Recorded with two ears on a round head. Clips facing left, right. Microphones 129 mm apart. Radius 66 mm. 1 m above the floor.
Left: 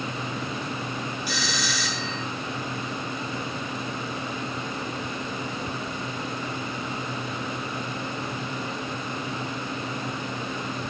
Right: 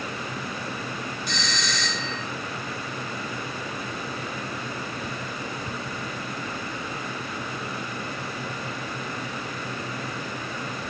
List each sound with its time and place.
1.3 s a doorbell: 5° left (ahead or behind), 1.1 m